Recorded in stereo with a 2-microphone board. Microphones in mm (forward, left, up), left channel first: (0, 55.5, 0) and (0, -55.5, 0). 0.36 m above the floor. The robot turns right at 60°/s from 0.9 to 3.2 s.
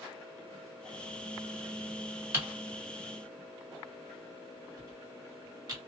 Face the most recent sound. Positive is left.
turn(degrees=-35)  # may be behind; listen again after turning